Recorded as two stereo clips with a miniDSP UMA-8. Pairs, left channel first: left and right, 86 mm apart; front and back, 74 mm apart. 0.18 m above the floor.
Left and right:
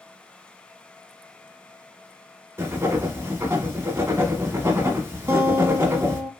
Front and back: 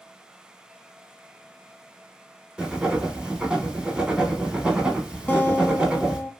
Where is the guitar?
55° right, 0.5 m.